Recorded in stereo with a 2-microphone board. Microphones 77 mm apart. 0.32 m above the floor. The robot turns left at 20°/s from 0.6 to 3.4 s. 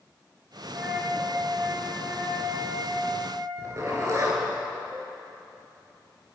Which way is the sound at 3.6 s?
40° right (ahead or behind).